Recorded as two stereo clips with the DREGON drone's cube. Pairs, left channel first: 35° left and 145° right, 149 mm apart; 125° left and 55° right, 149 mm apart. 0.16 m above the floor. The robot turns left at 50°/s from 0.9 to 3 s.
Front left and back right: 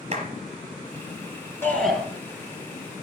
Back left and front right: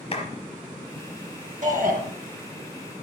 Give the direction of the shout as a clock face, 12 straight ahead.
1 o'clock.